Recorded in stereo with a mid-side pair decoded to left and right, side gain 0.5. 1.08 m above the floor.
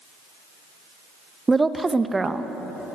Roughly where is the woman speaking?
Ahead.